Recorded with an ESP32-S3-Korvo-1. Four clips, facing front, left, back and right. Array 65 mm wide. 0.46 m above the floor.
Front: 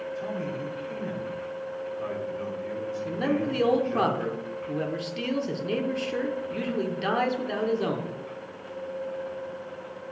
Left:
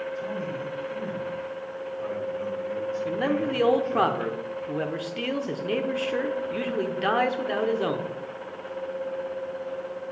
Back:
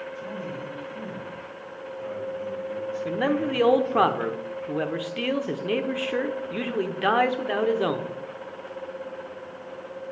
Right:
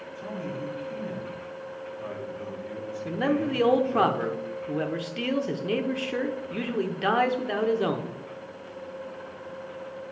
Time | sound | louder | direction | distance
0.1 | a man speaking | left 3 dB, front 2 dB | 20° left | 4 m
3.0 | a man speaking | right 2 dB, back 2 dB | straight behind | 0.8 m